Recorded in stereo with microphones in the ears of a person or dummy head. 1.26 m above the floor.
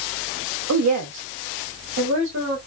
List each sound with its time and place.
0.7 s a woman speaking: 90° right, 0.5 m; by 2.6 s 55° right (ahead or behind), 1.3 m